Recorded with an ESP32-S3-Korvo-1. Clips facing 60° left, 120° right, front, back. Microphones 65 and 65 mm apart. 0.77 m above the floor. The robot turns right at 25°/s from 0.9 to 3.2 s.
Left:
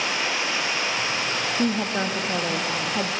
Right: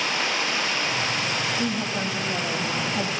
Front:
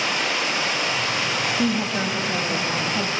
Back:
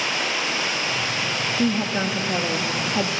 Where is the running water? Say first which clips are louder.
Even, front 1 dB; straight ahead, 3.5 m; by 3.2 s 55° left, 3.5 m.